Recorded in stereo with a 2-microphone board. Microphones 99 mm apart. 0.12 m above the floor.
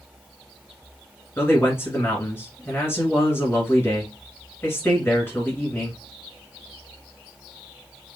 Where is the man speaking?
25° left (ahead or behind), 1.6 m.